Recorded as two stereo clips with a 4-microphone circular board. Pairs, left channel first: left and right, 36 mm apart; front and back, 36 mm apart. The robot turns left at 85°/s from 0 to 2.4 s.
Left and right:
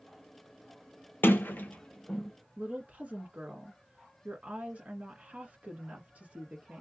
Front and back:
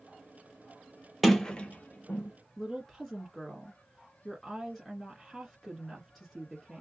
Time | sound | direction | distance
1.2 | a sliding door | 95° left | 0.9 m
2.6 | a woman speaking | 80° right | 1.4 m